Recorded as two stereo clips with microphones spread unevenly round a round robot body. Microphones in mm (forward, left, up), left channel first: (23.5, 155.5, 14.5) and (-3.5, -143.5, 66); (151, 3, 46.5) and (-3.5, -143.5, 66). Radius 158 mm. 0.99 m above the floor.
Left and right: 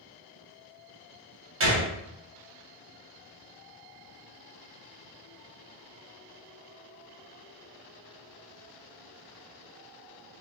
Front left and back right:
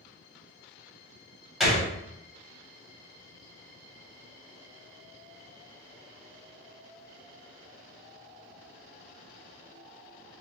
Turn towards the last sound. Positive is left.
turn(degrees=-45)